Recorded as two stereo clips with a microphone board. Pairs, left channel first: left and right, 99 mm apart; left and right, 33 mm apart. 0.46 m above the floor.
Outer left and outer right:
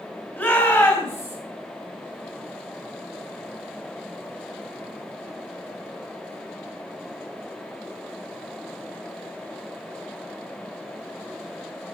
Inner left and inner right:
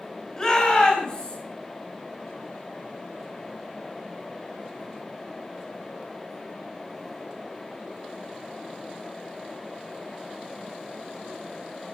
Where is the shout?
20° left (ahead or behind), 2.5 m; by 1.4 s 30° left (ahead or behind), 3.5 m.